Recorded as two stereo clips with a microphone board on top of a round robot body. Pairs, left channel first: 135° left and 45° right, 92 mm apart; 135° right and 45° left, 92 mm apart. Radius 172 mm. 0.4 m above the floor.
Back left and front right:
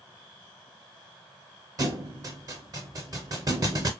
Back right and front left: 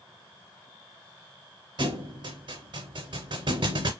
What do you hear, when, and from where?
1.8 s a thud: 5° left, 0.6 m